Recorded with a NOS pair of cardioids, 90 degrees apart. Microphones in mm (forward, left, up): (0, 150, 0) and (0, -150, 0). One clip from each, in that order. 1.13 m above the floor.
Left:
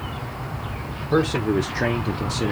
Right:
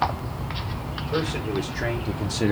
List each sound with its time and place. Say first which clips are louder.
1.0 s a man speaking: left 6 dB; 50° left, 1.2 m; by 2.5 s 15° right, 0.6 m